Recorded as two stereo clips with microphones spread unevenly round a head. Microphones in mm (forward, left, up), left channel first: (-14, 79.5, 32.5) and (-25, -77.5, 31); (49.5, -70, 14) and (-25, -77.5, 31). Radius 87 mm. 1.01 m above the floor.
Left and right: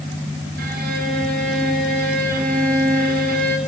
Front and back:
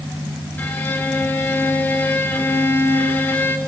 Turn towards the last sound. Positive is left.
turn(degrees=-60)